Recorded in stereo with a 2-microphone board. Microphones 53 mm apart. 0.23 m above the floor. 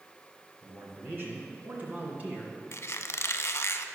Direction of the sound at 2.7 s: 55° left (ahead or behind).